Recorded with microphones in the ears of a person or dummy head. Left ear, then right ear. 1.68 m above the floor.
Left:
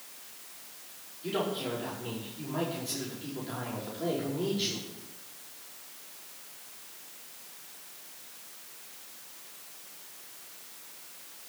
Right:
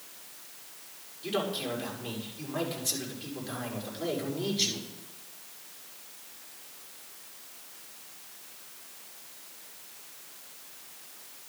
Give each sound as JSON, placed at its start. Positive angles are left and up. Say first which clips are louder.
{"t": 1.2, "sound": "a man speaking", "louder": "right 1 dB", "side_deg": -25, "distance_m": 5.5}